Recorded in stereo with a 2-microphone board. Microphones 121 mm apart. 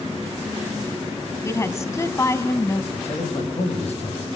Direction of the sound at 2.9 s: 60° left (ahead or behind).